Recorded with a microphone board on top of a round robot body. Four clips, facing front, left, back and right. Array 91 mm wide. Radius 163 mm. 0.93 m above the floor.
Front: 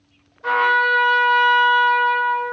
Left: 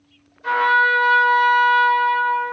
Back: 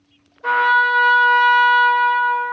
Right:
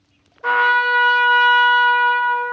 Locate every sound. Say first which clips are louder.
0.4 s a trumpet: right 1 dB, back 2 dB; 95° right, 1.7 m